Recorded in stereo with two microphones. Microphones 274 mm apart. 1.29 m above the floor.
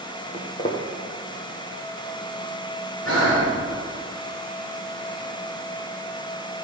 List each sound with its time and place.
0.3 s footsteps: 25° left (ahead or behind), 2 m
3.0 s breathing: 75° left (ahead or behind), 3.5 m